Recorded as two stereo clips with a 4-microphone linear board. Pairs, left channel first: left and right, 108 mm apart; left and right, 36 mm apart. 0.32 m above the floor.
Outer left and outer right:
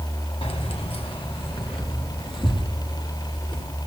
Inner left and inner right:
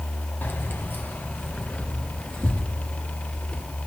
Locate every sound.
0.4 s keys jangling: 65° left (ahead or behind), 1.6 m; by 3.6 s 50° left (ahead or behind), 5 m